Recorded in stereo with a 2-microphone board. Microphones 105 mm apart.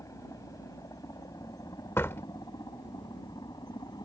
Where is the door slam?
25° left (ahead or behind).